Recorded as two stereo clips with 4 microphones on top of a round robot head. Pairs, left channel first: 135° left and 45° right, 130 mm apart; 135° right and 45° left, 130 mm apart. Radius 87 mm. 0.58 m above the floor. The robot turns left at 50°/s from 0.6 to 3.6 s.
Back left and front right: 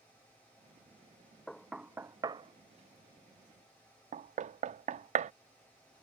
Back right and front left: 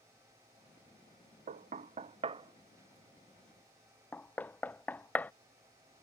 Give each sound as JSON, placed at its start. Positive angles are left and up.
{"t": 1.5, "sound": "knocking", "azimuth_deg": 50}